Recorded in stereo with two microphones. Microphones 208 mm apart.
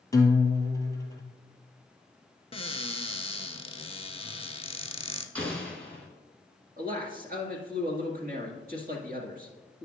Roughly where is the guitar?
Centre.